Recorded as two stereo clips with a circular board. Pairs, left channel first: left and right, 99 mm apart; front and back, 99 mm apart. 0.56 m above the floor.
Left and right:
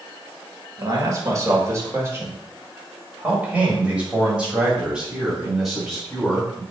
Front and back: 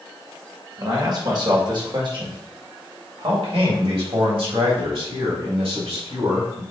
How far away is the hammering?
I don't hear hammering.